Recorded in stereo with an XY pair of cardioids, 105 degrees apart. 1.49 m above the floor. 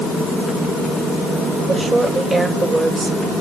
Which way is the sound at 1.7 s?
25° right.